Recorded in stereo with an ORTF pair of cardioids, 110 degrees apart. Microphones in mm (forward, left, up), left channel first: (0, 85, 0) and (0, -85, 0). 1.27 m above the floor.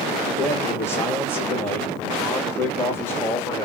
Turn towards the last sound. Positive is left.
turn(degrees=15)